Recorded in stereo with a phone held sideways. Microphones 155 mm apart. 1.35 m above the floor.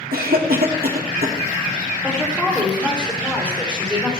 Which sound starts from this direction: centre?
A woman speaking, at 2.0 s.